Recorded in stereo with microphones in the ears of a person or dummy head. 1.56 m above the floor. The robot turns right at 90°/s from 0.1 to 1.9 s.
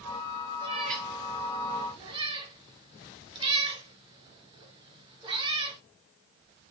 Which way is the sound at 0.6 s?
25° right (ahead or behind).